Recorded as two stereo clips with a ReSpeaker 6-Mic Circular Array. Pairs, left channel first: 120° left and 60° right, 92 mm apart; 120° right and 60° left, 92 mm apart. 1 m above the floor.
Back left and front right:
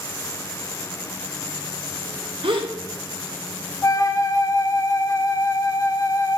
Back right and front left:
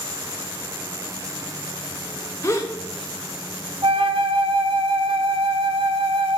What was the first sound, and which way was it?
A gasp, 65° right.